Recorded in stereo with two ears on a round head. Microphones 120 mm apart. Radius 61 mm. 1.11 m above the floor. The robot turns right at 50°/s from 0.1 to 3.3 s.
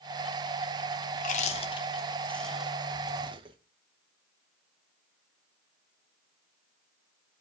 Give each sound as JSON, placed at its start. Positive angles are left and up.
{"t": 1.1, "sound": "chewing", "side_deg": 65, "distance_m": 0.8}